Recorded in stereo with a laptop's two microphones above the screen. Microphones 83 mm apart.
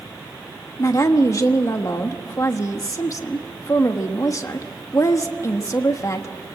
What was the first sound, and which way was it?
A woman speaking, 40° left (ahead or behind).